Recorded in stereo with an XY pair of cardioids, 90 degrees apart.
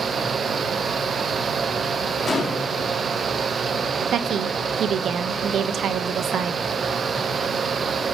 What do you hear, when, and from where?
0.0 s a fan: 45° right, 0.8 m
2.3 s a gunshot: 35° left, 3 m
4.1 s a woman speaking: 70° right, 0.9 m